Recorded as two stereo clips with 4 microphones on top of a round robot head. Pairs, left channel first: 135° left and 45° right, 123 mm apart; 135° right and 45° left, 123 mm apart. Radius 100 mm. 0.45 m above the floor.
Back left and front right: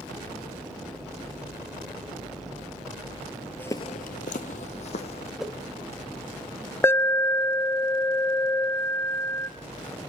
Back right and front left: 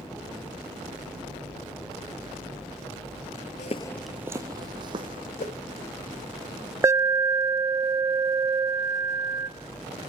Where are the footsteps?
150° right, 0.5 m; by 5.3 s 95° left, 1.6 m.